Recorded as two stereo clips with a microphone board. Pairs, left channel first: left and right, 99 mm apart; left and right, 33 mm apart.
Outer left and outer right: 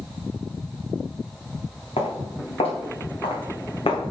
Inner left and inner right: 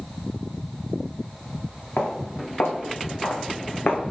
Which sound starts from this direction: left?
Footsteps, at 2.0 s.